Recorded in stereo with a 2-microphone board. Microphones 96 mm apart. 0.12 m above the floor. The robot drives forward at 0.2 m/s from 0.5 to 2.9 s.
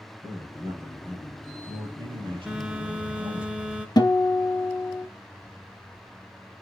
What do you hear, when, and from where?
0.2 s a man speaking: 50° right (ahead or behind), 3 m; by 3.5 s 55° right (ahead or behind), 3 m
2.5 s a phone buzzing: 10° right (ahead or behind), 0.6 m
4.0 s a guitar: 45° left (ahead or behind), 0.7 m